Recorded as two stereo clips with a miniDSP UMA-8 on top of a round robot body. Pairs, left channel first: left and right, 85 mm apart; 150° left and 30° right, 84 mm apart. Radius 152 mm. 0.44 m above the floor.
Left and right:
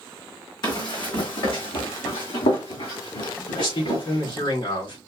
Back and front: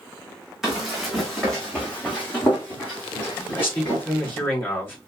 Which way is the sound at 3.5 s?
85° left.